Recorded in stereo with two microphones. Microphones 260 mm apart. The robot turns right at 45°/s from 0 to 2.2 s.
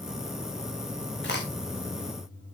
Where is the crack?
45° left (ahead or behind), 3.5 m; by 1.4 s 35° left (ahead or behind), 3.5 m.